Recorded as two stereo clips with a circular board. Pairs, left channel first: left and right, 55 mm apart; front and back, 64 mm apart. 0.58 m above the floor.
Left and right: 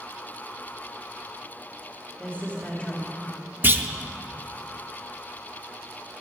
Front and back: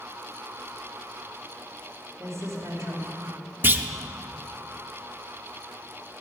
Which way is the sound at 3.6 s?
130° right.